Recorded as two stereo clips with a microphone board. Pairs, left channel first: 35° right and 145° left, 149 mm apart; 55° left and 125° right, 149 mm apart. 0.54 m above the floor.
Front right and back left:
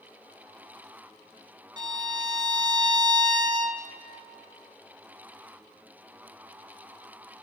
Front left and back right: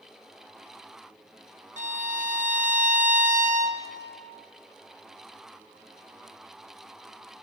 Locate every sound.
1.8 s a violin: 155° right, 0.7 m